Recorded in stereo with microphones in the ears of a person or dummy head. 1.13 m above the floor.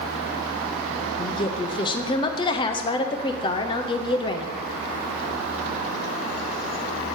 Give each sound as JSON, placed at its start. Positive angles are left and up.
{"t": 1.2, "sound": "a woman speaking", "side_deg": 20, "distance_m": 0.8}